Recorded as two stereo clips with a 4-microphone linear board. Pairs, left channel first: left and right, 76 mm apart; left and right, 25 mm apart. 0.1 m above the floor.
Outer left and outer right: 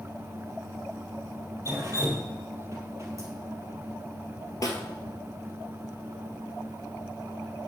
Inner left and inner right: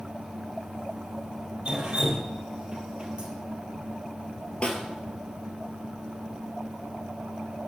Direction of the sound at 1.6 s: 40° right (ahead or behind).